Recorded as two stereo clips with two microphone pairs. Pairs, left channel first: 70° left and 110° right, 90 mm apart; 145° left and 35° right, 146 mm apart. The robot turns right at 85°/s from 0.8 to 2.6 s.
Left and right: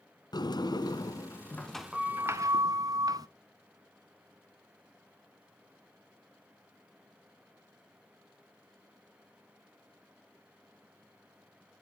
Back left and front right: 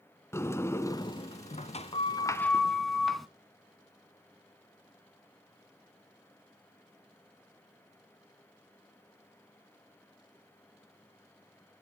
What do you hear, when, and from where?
0.3 s a sliding door: 80° left, 0.8 m; by 3.3 s 130° right, 0.8 m